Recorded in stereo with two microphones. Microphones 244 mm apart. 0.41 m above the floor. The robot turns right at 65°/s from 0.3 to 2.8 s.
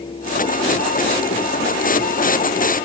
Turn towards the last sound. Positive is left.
No sound to turn to.